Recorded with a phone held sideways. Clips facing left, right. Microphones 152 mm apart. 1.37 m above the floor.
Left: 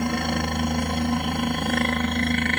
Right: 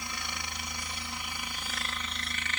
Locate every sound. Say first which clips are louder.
0.0 s a helicopter: left 18 dB; 60° left (ahead or behind)